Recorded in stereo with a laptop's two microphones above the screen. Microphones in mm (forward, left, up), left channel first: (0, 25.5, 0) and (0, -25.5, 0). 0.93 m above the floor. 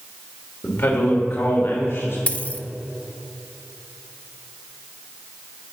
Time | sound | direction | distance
0.6 | a man speaking | 60° left (ahead or behind) | 1.3 m
2.3 | a dropped coin | 30° left (ahead or behind) | 0.6 m